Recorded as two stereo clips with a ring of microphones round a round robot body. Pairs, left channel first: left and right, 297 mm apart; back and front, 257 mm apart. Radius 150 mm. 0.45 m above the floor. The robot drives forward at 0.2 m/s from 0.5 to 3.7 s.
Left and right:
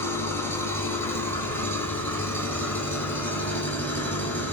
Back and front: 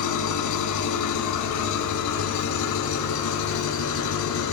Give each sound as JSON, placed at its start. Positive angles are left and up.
{"t": 0.0, "sound": "an engine running", "azimuth_deg": 175, "distance_m": 2.0}